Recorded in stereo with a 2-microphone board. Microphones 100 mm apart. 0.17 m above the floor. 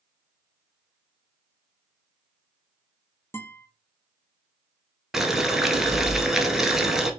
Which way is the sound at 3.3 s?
20° left (ahead or behind).